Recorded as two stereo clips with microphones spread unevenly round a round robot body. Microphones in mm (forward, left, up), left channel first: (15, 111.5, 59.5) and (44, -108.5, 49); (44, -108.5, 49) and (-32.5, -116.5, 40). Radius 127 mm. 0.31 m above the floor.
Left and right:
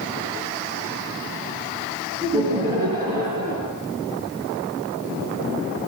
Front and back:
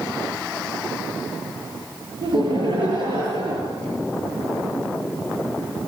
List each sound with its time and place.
2.2 s laughter: 155° right, 7 m